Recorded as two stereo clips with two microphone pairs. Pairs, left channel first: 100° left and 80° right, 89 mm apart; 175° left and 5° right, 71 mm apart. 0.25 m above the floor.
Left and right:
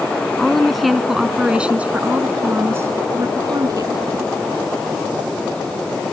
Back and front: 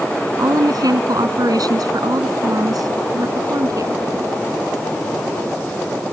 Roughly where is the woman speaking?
Ahead.